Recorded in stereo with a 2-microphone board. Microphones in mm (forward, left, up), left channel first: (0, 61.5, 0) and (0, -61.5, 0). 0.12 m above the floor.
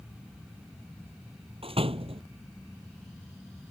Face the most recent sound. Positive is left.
turn(degrees=-50)  # may be behind; listen again after turning